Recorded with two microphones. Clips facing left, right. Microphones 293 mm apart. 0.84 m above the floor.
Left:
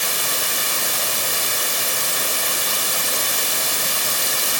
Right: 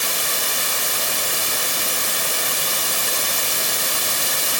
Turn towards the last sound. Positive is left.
No sound to turn to.